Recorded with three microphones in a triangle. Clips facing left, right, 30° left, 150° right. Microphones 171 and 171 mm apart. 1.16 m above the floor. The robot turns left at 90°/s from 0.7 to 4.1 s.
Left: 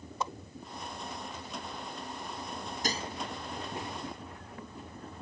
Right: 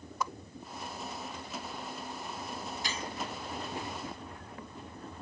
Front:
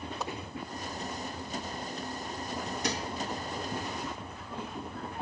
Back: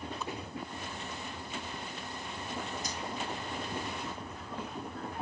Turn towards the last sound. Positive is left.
turn(degrees=-70)